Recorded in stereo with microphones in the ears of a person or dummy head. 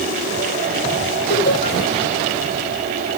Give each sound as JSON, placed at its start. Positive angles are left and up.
{"t": 1.3, "sound": "laughter", "side_deg": 55, "distance_m": 7.0}